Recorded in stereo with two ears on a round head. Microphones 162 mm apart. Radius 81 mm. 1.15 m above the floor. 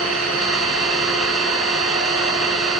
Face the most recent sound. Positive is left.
turn(degrees=0)  # may be behind; listen again after turning